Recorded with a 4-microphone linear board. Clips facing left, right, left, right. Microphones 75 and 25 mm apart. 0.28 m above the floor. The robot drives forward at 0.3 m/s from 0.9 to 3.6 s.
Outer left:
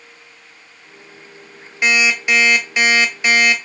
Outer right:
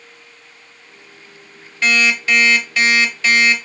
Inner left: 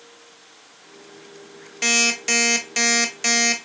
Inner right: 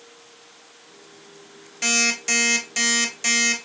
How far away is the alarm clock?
About 0.7 m.